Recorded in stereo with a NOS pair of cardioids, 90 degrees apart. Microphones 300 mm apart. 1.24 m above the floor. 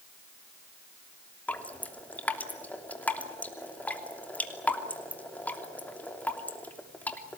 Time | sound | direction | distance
1.5 | dripping | 5° left | 3 m